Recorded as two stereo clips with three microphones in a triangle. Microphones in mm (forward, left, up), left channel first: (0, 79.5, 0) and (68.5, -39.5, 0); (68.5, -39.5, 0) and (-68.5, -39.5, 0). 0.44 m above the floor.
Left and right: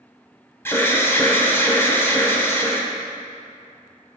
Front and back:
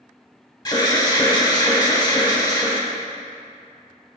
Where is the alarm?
50° left, 1.0 m.